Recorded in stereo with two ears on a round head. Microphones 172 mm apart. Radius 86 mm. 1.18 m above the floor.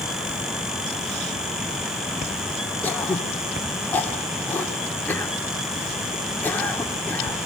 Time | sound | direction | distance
2.8 | throat clearing | 10° left (ahead or behind) | 1.8 m